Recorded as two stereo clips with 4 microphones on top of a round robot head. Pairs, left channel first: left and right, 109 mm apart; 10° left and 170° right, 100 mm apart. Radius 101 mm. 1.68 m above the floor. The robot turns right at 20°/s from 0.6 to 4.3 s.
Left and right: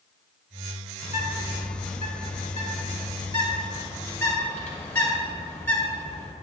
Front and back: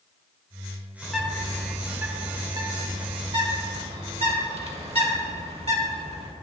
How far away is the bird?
About 0.9 m.